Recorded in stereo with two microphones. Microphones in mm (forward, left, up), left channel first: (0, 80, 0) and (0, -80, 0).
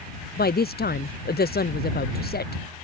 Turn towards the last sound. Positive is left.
turn(degrees=80)